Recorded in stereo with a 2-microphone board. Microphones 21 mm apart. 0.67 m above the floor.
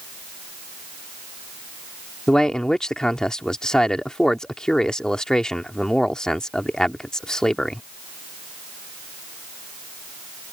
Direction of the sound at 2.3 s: 35° left (ahead or behind).